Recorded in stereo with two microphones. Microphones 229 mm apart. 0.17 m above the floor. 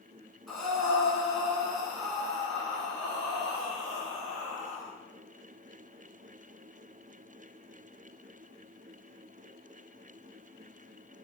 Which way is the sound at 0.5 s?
Centre (ahead or behind).